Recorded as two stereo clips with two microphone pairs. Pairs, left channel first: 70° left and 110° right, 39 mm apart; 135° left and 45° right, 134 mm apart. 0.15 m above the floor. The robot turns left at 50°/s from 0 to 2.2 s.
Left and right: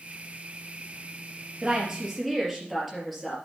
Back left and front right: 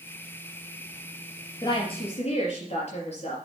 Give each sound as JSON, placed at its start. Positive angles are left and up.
{"t": 1.6, "sound": "a woman speaking", "azimuth_deg": -170, "distance_m": 3.5}